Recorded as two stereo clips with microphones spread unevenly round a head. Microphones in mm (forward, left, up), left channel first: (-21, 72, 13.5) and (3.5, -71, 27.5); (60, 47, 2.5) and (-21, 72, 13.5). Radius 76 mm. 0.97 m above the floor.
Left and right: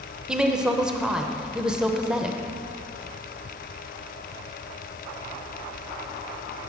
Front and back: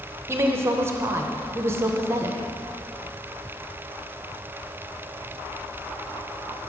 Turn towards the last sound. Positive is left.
turn(degrees=-170)